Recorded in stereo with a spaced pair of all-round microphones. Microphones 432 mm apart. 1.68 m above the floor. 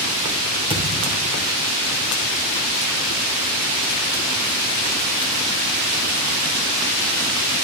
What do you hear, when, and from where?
0.7 s a thud: 10° right (ahead or behind), 5 m